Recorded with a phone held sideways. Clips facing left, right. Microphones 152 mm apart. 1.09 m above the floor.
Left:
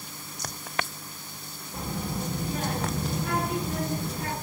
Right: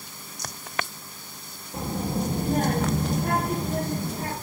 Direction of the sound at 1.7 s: 20° right (ahead or behind).